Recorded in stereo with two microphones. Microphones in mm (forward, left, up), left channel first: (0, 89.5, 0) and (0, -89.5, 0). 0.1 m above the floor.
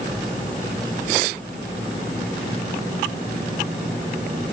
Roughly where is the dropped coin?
I don't hear a dropped coin.